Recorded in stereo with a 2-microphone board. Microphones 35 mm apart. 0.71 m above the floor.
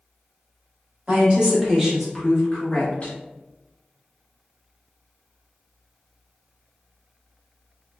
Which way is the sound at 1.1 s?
40° right (ahead or behind).